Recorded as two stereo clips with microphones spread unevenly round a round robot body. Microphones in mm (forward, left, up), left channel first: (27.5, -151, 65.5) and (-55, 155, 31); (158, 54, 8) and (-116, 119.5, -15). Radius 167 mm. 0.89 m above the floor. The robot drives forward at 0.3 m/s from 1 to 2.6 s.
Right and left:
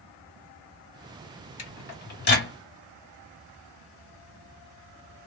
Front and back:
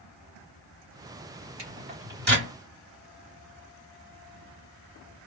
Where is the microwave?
130° right, 2 m; by 2.5 s 135° right, 2 m.